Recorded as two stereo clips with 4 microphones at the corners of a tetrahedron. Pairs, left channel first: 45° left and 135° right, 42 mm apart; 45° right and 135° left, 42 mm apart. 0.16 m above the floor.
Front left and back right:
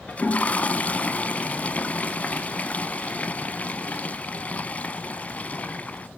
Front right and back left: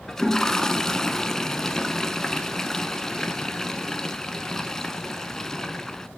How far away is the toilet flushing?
About 0.8 m.